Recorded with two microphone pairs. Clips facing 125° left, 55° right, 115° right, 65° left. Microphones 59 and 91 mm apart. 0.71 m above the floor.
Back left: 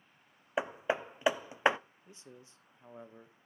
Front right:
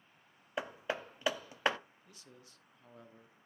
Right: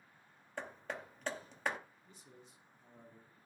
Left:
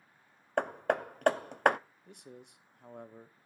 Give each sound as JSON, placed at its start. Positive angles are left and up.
{"t": 0.6, "sound": "hammering", "azimuth_deg": 55, "distance_m": 0.5}
{"t": 2.1, "sound": "a man speaking", "azimuth_deg": 60, "distance_m": 1.0}